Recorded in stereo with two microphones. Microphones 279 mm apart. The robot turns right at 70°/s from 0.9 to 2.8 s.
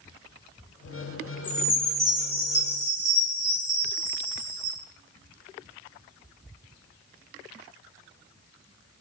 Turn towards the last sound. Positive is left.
turn(degrees=-100)